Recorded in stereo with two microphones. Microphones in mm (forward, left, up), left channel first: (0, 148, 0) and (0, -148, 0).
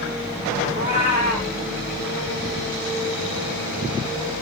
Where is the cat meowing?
60° left (ahead or behind), 3 m.